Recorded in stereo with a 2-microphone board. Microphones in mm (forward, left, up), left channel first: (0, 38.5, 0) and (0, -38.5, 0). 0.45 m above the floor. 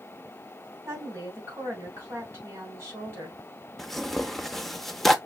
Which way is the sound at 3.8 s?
5° left (ahead or behind).